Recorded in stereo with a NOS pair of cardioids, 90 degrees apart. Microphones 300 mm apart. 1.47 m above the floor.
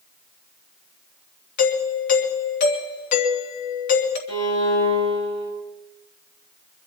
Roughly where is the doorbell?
Left.